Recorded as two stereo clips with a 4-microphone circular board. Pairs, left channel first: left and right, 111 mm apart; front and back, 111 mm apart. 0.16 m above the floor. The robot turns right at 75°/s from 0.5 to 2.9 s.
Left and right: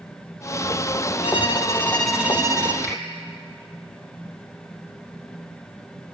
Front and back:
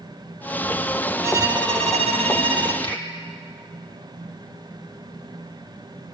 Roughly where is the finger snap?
Ahead right.